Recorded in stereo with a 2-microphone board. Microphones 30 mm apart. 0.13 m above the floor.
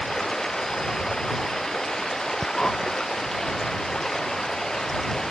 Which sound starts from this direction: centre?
Running water, at 0.0 s.